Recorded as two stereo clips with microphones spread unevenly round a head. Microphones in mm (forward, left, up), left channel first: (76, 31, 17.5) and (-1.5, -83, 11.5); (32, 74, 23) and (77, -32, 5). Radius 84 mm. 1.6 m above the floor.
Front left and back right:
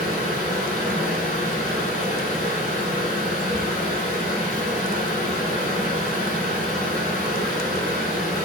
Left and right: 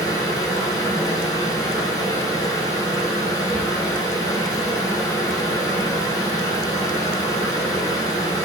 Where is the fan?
55° left, 1.0 m.